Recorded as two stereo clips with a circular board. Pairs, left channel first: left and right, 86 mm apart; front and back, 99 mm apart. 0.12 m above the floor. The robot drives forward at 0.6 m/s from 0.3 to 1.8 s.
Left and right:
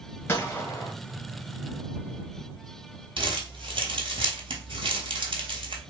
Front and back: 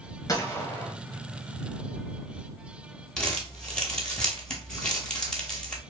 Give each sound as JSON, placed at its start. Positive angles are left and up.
{"t": 0.3, "sound": "a gunshot", "azimuth_deg": 35, "distance_m": 1.0}
{"t": 3.2, "sound": "crumpling", "azimuth_deg": -80, "distance_m": 0.9}